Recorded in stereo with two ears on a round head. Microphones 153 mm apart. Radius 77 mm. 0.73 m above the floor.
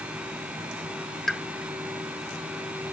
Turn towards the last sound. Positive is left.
turn(degrees=0)  # may be behind; listen again after turning